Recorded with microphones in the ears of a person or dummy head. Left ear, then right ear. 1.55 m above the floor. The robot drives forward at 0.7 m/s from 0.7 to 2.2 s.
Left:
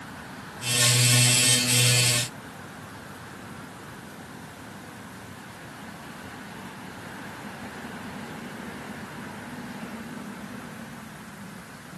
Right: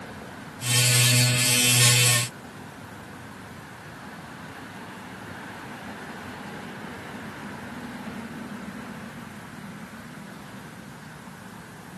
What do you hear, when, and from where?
Only background noise.